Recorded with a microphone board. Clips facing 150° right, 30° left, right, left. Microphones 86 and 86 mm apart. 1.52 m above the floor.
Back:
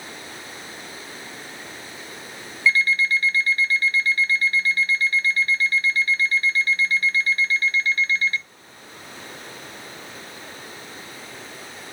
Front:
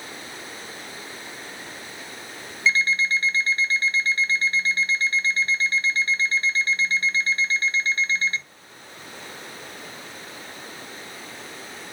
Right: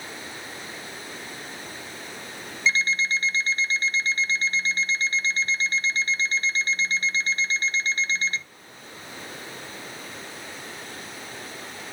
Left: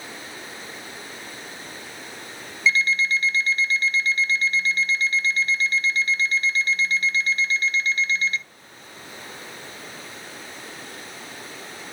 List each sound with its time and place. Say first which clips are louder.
2.7 s an alarm clock: back 2 dB, left 3 dB; 35° right, 1.1 m